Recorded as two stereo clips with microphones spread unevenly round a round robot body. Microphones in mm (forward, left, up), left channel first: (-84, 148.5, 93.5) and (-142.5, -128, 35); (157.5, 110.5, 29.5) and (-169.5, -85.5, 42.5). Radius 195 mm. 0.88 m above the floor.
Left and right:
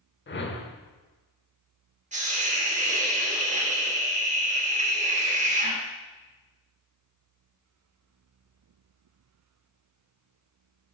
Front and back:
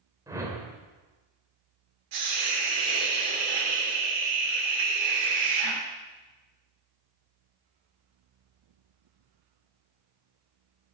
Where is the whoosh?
130° left, 1.9 m.